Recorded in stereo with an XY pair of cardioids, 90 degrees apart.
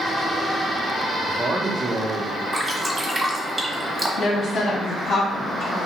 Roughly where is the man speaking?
Ahead.